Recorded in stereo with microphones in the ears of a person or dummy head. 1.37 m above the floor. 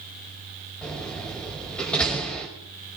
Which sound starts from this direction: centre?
A door slam, at 0.8 s.